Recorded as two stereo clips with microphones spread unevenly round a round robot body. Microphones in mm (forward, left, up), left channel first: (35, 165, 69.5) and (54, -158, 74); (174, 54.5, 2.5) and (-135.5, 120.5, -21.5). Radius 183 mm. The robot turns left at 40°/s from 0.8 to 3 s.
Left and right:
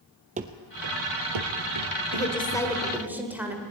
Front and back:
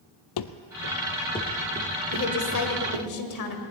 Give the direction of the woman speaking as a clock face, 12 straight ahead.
11 o'clock.